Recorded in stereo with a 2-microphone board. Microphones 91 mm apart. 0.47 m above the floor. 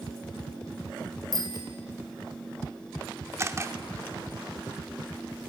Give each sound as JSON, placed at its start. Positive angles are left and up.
{"t": 1.3, "sound": "a bicycle bell", "side_deg": -45, "distance_m": 3.0}
{"t": 3.4, "sound": "a camera shutter", "side_deg": -30, "distance_m": 1.1}